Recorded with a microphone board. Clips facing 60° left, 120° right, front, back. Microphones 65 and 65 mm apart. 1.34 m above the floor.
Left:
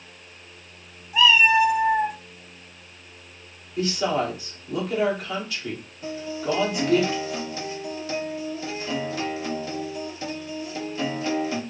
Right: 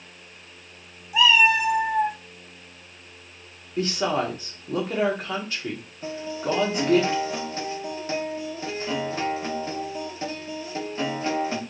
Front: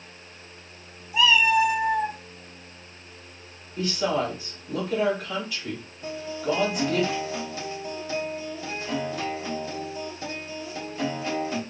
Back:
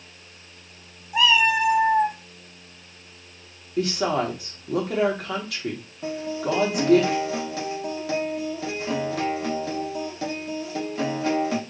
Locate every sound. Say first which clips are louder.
1.1 s a cat meowing: left 1 dB, even; 165° left, 1.4 m; by 2.2 s 140° left, 0.8 m
3.8 s a woman speaking: even, back 2 dB; 175° right, 1.8 m
6.0 s a guitar: even, back 2 dB; straight behind, 1.4 m